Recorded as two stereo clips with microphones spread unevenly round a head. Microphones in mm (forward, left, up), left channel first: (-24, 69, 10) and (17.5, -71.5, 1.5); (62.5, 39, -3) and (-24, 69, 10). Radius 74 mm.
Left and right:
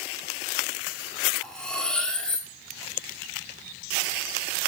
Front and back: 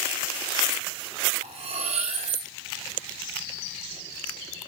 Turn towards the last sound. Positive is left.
turn(degrees=-170)